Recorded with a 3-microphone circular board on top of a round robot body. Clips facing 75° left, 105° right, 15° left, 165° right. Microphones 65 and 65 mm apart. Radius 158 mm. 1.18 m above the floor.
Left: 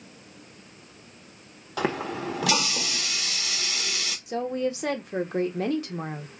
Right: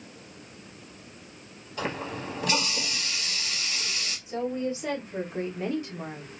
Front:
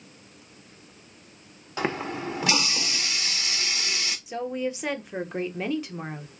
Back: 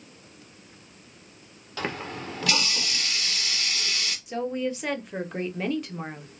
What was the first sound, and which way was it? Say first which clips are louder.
A running tap: left 5 dB, front 4 dB; 85° left.